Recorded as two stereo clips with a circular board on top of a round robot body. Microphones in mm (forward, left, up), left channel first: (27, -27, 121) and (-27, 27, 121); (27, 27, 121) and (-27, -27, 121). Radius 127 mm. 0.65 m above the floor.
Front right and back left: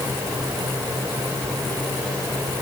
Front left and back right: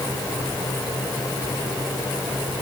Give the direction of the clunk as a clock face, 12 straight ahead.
I don't hear a clunk.